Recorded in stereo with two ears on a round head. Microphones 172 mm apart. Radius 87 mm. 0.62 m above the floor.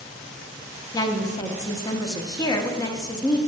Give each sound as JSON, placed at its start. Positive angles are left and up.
{"t": 0.9, "sound": "a woman speaking", "side_deg": 20, "distance_m": 0.7}